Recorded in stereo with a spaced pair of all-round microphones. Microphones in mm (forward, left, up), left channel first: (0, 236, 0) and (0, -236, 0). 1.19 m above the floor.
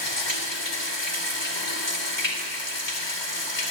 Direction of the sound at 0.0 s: 70° left (ahead or behind).